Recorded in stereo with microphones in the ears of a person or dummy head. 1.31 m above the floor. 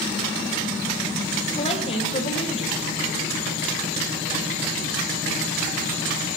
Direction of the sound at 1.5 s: 40° left (ahead or behind).